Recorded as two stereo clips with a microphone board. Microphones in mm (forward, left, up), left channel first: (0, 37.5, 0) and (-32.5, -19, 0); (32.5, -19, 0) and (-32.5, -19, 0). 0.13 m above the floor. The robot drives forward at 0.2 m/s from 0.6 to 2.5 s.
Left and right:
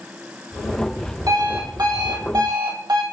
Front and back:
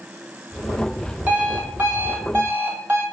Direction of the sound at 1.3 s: 115° right.